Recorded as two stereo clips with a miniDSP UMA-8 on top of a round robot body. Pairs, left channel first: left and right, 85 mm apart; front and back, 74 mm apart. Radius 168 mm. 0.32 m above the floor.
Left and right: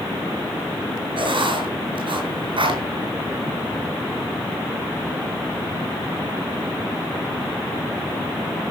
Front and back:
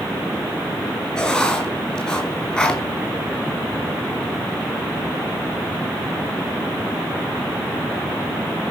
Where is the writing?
80° right, 4.5 m.